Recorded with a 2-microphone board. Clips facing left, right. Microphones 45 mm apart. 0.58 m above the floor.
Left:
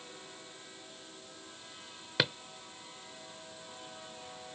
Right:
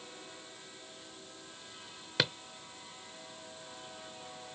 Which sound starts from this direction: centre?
A drawer, at 2.2 s.